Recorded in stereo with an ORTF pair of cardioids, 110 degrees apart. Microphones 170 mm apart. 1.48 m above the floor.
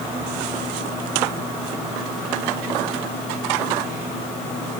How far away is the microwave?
I don't hear a microwave.